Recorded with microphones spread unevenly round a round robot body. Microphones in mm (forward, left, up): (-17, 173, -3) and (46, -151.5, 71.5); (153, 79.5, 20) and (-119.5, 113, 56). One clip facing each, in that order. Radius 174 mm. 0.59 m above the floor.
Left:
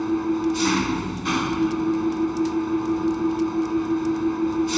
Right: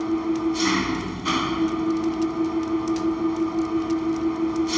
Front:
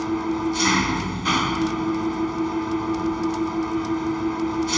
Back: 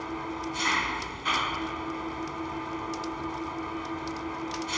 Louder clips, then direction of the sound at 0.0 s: Left 1 dB, front 12 dB; 25° left.